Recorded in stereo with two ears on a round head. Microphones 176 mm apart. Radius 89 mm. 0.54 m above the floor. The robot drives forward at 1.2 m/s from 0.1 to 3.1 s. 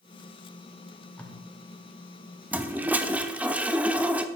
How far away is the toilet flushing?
About 0.7 m.